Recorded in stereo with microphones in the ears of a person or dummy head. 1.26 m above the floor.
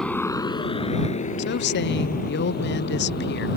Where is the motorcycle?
5° left (ahead or behind); by 3.6 s 50° left (ahead or behind).